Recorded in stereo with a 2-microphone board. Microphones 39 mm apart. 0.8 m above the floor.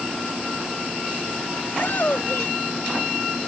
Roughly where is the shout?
Left.